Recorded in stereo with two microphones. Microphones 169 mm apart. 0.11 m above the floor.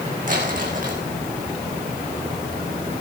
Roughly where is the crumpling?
Right.